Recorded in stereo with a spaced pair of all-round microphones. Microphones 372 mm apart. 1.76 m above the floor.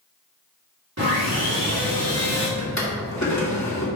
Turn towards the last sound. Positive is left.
turn(degrees=45)  # may be behind; listen again after turning